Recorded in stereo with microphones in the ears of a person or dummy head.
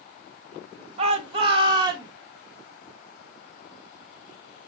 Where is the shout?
35° right (ahead or behind), 2.5 m; by 2.1 s 20° right (ahead or behind), 2 m.